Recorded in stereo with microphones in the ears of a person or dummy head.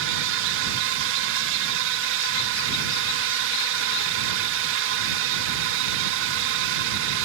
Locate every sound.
0.0 s a drone: 65° right (ahead or behind)